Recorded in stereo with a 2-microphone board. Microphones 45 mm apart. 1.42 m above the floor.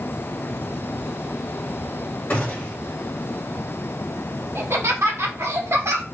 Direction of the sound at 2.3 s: 45° left (ahead or behind).